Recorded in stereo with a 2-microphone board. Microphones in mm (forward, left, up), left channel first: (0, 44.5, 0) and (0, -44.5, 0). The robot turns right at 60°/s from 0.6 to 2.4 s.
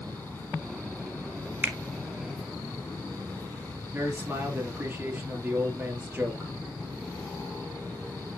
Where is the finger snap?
15° right (ahead or behind), 1.2 m; by 1.8 s 20° right (ahead or behind), 1.2 m.